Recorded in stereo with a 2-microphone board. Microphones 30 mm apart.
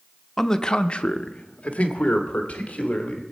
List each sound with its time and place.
0.4 s a man speaking: 10° left (ahead or behind), 0.5 m; by 3.2 s 50° left (ahead or behind), 1.9 m